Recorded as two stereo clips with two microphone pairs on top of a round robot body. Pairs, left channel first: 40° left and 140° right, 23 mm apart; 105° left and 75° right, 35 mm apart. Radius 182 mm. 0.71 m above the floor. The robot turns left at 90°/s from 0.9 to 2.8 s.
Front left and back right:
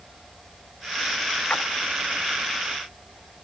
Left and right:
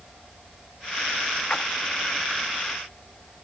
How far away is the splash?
About 1.0 m.